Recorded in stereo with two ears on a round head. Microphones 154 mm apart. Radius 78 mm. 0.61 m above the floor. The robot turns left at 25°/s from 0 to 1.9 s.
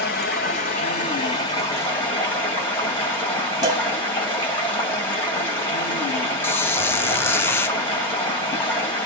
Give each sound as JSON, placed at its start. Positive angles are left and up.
{"t": 0.0, "sound": "running water", "azimuth_deg": 60, "distance_m": 1.7}
{"t": 3.6, "sound": "a cowbell", "side_deg": -25, "distance_m": 0.8}
{"t": 6.4, "sound": "a squeak", "side_deg": 15, "distance_m": 0.5}